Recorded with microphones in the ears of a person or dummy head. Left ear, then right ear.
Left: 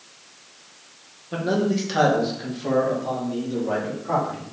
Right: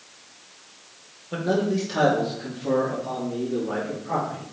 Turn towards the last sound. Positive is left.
turn(degrees=55)  # may be behind; listen again after turning